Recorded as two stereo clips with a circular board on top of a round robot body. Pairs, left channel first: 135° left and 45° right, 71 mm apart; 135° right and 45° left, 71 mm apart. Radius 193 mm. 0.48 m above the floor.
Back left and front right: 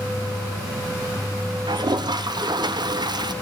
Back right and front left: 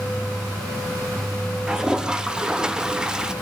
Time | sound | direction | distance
1.7 | a toilet flushing | 35° right | 0.9 m